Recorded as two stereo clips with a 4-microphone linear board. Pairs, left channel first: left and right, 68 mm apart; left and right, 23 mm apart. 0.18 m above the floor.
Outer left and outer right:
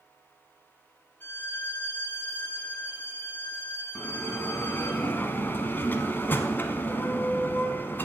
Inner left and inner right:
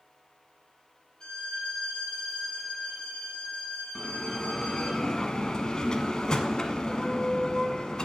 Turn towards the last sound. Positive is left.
turn(degrees=30)  # may be behind; listen again after turning